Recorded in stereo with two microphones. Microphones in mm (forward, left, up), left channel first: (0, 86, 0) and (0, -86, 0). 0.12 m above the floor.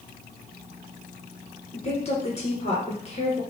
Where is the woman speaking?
40° left (ahead or behind), 1.7 m.